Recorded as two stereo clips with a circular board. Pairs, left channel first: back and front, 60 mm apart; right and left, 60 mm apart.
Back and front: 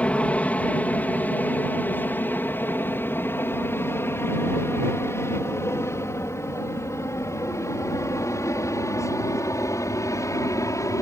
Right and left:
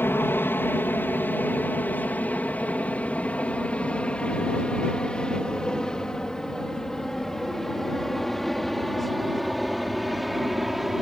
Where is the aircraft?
125° right; by 11.0 s 175° left.